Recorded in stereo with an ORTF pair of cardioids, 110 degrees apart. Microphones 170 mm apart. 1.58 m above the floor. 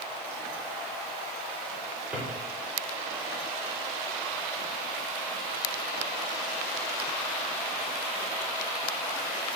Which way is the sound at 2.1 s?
10° right.